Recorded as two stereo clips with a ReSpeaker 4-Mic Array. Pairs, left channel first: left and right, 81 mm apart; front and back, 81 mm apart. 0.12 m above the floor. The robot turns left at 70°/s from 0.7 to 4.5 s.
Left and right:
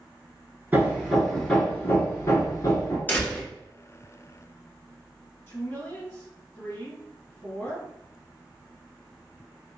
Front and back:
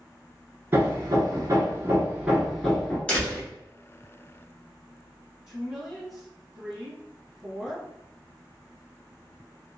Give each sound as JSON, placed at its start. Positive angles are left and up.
{"t": 0.7, "sound": "hammering", "azimuth_deg": -135, "distance_m": 0.8}
{"t": 3.1, "sound": "a door slam", "azimuth_deg": 60, "distance_m": 1.0}
{"t": 5.5, "sound": "a woman speaking", "azimuth_deg": 95, "distance_m": 1.7}